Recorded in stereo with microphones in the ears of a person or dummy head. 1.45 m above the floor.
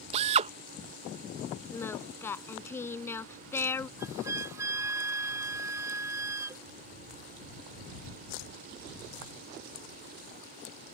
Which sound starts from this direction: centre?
Singing, at 1.7 s.